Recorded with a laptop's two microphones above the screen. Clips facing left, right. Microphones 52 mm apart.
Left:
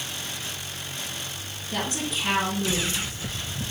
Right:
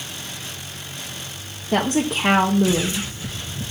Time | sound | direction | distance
1.7 | a woman speaking | 65° right (ahead or behind) | 1.2 m